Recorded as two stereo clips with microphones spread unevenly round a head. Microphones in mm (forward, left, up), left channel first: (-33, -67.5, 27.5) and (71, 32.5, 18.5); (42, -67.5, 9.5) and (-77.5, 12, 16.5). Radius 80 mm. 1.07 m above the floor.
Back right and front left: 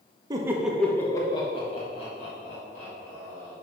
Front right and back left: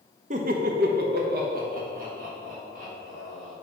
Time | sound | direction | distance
0.3 | laughter | 105° left | 0.7 m